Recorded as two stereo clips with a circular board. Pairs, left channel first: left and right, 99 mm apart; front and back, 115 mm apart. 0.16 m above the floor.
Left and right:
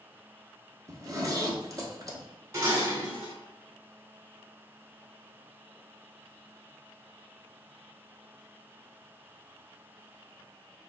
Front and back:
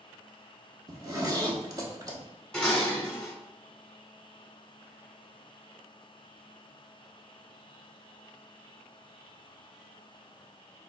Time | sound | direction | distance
0.9 | a zipper | 135° right | 0.7 m
2.5 | dishes clattering | 75° right | 1.1 m